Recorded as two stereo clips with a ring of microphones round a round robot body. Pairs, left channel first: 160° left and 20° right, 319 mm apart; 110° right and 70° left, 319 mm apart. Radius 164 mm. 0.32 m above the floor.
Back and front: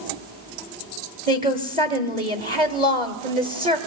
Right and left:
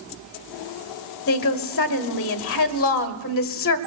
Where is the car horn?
I don't hear a car horn.